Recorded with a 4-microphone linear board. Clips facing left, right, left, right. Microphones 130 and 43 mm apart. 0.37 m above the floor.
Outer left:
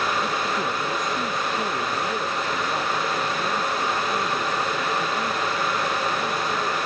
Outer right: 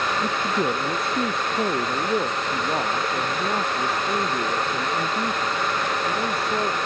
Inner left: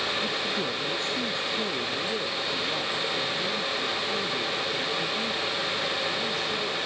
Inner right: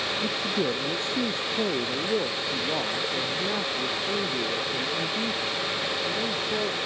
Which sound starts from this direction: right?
A man speaking, at 0.2 s.